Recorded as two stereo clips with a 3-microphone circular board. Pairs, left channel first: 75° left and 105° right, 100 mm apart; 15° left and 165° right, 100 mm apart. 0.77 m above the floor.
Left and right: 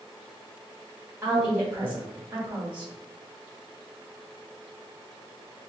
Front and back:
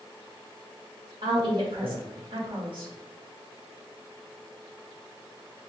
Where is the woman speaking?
175° right, 1.6 m.